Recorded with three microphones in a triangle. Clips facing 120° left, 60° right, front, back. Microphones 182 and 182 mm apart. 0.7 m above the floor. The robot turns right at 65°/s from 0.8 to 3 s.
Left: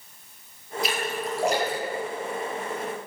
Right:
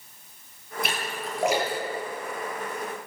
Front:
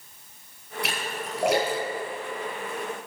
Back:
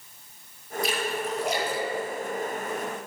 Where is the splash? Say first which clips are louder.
Left 5 dB, back 5 dB; 25° right, 9.5 m; by 2.8 s 105° left, 9.5 m.